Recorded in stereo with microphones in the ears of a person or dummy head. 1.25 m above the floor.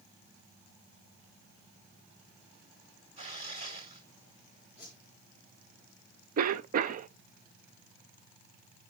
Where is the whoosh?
5° right (ahead or behind), 3.5 m.